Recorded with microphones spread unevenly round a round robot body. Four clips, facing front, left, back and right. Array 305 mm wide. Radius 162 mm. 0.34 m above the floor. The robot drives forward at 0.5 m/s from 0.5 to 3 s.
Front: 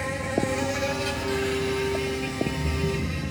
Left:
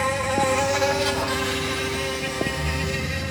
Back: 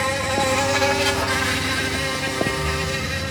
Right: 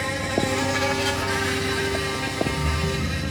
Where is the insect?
115° left, 1.3 m; by 3.3 s 160° left, 2.0 m.